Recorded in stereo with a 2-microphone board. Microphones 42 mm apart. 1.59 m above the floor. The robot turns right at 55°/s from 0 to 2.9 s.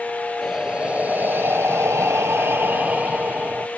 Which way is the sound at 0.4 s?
Straight behind.